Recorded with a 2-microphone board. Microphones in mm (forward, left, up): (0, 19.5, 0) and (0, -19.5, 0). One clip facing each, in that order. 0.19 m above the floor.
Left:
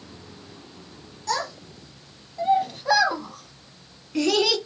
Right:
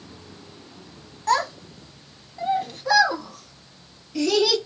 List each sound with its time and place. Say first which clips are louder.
1.3 s a child speaking: right 6 dB; 40° right (ahead or behind), 1.1 m; by 4.6 s 50° left (ahead or behind), 1.6 m